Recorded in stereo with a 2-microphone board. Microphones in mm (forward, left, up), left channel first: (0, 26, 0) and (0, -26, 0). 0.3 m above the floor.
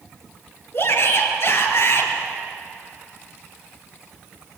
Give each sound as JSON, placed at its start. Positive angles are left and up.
{"t": 0.7, "sound": "a shout", "side_deg": 55, "distance_m": 5.0}